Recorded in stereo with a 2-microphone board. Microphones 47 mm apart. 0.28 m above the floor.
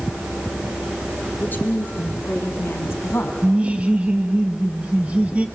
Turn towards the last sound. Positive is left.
turn(degrees=-30)  # may be behind; listen again after turning